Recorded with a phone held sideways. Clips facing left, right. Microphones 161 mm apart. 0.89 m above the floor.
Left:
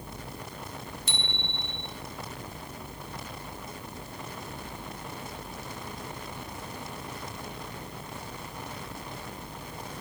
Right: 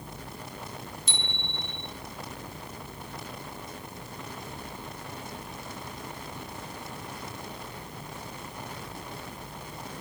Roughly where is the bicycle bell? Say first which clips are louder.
Left 1 dB; left.